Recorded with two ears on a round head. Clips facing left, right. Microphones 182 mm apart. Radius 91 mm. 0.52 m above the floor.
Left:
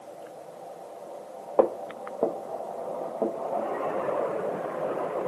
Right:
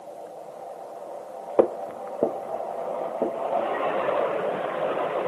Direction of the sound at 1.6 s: 25° right (ahead or behind).